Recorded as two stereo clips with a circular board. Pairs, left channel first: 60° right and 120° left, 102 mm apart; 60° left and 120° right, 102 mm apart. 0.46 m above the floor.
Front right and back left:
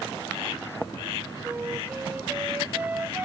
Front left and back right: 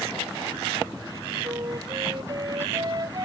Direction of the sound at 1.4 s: 170° right.